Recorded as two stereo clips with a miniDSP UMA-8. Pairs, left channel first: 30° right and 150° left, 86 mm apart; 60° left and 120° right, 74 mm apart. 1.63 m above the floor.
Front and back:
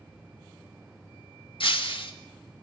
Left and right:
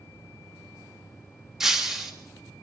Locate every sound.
1.6 s breaking glass: 35° right, 1.9 m